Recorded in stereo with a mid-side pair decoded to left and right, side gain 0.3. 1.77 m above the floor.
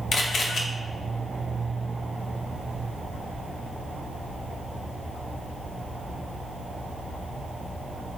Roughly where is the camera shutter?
Ahead left.